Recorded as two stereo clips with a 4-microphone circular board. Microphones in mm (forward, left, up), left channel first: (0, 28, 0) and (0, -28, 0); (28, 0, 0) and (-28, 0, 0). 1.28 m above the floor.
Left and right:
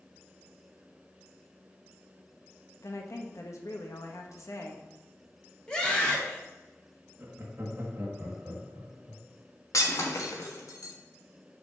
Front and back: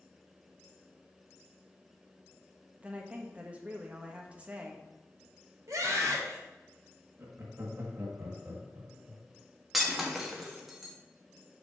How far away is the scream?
About 2.5 m.